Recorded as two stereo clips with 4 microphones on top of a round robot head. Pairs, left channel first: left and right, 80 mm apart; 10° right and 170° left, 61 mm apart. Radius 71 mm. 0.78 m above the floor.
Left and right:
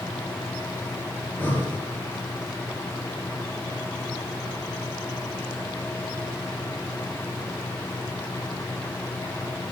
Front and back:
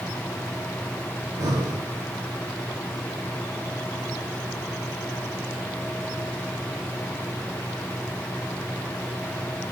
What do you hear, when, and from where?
1.2 s breathing: 155° left, 4.5 m